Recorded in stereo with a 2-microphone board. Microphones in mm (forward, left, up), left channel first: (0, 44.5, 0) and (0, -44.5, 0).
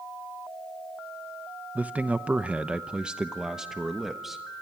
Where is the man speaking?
15° right (ahead or behind), 0.8 m; by 4.4 s 5° right (ahead or behind), 1.4 m.